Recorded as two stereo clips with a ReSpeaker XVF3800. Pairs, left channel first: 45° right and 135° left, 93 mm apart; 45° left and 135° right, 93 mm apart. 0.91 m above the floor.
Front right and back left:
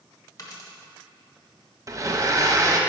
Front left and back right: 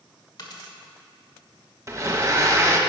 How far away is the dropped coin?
About 1.3 m.